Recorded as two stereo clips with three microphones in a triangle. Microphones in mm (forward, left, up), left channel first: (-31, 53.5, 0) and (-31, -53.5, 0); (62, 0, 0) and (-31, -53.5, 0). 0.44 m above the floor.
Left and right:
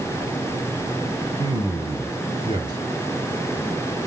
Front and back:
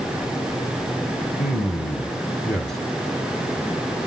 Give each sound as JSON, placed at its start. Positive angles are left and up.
{"t": 1.4, "sound": "a man speaking", "azimuth_deg": -55, "distance_m": 2.5}